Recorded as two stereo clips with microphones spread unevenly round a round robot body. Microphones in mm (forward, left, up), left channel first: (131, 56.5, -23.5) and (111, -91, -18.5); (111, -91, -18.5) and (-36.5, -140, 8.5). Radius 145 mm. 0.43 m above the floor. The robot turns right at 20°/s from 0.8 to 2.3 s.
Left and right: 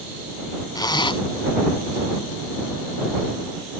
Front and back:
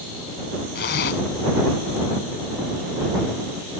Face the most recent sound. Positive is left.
turn(degrees=45)